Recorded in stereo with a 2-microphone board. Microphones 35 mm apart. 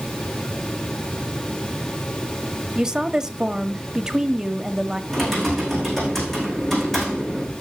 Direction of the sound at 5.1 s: 5° left (ahead or behind).